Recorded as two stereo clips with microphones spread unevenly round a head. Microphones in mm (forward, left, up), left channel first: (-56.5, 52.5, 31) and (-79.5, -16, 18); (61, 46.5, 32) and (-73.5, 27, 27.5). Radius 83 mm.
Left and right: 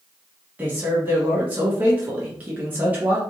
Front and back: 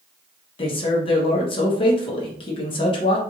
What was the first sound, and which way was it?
A man speaking, 45° right.